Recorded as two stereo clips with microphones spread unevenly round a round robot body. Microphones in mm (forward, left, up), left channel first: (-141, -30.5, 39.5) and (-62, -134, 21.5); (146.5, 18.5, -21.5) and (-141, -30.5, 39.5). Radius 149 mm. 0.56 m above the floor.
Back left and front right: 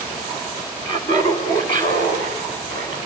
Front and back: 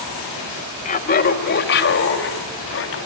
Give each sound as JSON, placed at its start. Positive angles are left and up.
{"t": 0.8, "sound": "laughter", "azimuth_deg": 60, "distance_m": 1.8}